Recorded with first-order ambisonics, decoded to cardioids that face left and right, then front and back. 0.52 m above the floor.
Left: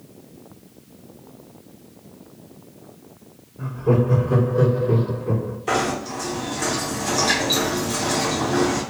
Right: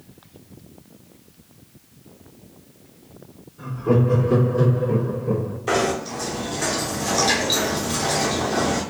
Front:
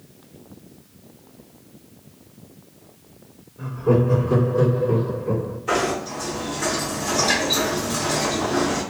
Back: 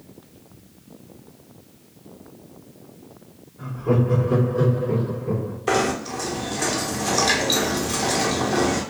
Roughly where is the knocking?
Behind.